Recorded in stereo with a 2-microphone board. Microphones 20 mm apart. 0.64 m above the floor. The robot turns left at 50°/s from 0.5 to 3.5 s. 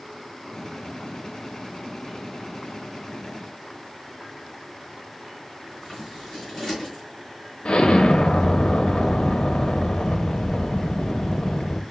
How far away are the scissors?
About 3.5 m.